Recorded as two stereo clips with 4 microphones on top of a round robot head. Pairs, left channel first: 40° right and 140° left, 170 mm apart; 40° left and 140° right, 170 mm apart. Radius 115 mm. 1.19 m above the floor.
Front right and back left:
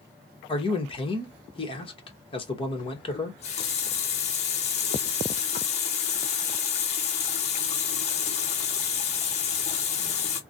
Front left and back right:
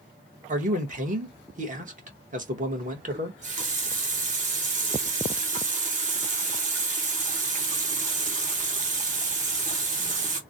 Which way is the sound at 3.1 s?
95° right.